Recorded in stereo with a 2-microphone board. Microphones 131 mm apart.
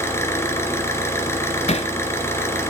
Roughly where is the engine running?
Centre.